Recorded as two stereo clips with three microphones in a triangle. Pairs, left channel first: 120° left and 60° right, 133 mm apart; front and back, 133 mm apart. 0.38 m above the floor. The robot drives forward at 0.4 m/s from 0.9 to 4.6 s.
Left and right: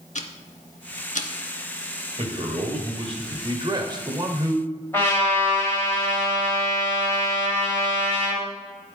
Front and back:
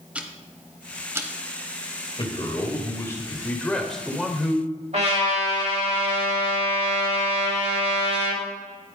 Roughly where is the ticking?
Left.